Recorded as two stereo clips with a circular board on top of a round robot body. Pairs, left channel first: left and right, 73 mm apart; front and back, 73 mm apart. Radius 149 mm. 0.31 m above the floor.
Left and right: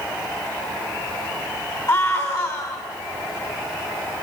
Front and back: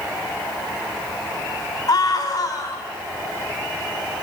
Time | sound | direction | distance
1.9 | a scream | 40° left | 4 m